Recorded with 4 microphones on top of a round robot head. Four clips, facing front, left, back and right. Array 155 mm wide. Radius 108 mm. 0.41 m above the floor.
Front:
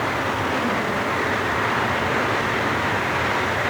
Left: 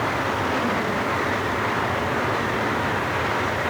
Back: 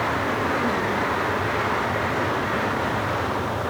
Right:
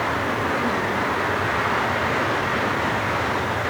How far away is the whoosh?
No whoosh in this recording.